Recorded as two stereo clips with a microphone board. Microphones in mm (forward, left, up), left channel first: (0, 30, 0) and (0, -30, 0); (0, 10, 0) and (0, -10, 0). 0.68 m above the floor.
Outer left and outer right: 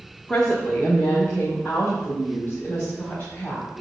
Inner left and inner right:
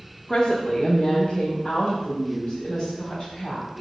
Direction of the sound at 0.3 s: 15° left (ahead or behind).